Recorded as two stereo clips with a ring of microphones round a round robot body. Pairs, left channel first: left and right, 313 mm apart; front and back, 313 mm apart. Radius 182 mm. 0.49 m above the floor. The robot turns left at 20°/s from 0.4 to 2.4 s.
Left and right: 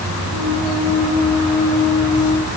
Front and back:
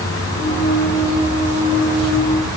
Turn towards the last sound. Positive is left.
No sound to turn to.